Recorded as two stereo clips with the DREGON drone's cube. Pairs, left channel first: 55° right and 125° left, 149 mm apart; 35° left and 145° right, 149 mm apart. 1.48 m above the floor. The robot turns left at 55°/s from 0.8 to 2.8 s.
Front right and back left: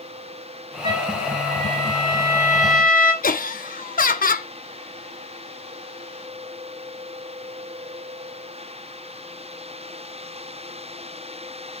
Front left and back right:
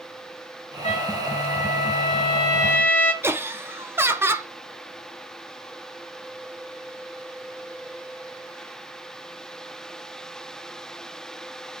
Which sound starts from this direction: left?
A trumpet, at 0.8 s.